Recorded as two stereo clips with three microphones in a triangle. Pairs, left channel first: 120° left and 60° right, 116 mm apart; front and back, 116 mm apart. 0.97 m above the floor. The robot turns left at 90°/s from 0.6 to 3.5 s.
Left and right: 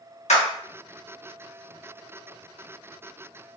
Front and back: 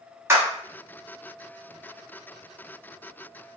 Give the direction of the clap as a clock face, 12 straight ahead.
8 o'clock.